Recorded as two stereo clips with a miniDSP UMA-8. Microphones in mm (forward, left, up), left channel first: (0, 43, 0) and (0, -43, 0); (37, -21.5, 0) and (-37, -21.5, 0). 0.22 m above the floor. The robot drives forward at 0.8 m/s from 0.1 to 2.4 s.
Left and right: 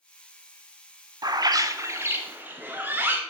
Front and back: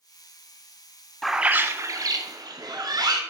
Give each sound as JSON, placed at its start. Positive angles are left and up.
{"t": 1.2, "sound": "a bird", "azimuth_deg": -85, "distance_m": 0.5}